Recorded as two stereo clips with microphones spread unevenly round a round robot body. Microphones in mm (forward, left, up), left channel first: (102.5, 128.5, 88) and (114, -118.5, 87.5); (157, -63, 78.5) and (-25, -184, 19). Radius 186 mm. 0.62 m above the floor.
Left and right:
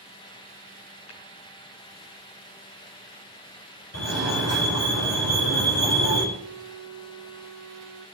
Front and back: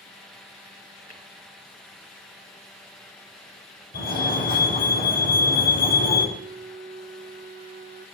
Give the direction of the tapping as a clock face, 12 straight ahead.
9 o'clock.